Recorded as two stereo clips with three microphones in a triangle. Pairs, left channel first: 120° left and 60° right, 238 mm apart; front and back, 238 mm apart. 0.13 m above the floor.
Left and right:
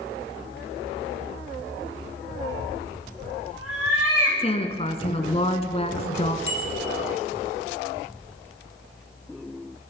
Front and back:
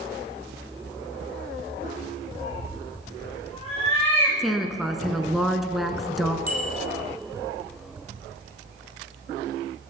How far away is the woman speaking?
About 1.2 m.